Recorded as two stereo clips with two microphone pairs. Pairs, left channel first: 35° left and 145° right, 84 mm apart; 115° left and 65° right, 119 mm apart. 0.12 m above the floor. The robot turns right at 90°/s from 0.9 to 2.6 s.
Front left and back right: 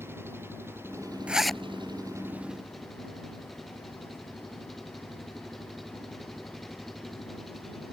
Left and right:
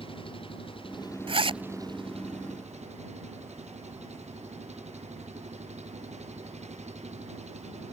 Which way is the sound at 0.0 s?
155° left.